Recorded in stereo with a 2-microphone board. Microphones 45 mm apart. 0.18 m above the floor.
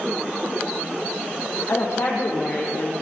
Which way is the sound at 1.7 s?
70° left (ahead or behind).